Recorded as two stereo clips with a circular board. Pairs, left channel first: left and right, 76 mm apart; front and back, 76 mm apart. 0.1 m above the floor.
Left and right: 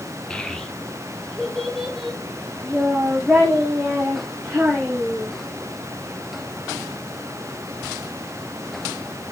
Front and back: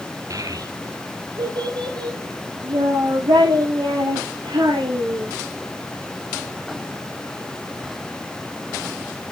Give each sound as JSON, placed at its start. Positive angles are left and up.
{"t": 0.3, "sound": "a child speaking", "azimuth_deg": 165, "distance_m": 1.0}